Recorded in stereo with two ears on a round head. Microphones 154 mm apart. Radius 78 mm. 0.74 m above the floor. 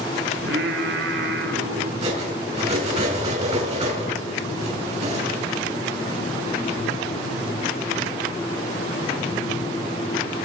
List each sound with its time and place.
0.3 s singing: 70° right (ahead or behind), 1.7 m
2.0 s cutlery clinking: 40° right (ahead or behind), 4.5 m